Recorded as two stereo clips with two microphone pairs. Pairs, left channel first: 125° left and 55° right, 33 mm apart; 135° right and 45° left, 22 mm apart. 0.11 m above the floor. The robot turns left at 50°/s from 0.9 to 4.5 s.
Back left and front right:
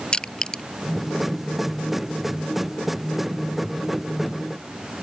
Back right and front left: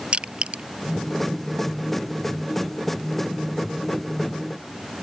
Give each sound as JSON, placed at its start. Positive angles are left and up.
{"t": 0.1, "sound": "crushing", "azimuth_deg": 70}